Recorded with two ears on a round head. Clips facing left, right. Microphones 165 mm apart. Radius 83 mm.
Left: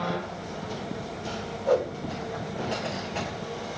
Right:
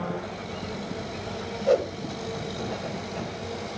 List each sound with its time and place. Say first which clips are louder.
1.7 s a whoosh: right 2 dB; 25° right (ahead or behind), 1.5 m